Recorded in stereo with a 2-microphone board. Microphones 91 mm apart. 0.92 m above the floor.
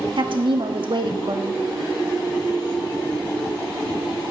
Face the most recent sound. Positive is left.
turn(degrees=-65)  # may be behind; listen again after turning